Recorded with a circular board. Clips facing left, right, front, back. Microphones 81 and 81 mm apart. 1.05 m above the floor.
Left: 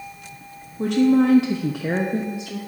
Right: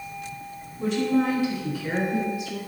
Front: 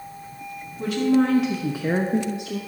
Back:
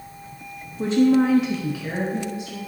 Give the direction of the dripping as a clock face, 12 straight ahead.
No dripping in this recording.